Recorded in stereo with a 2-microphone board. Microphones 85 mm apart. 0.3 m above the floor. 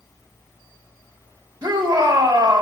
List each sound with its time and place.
1.6 s a shout: 55° right (ahead or behind), 2.5 m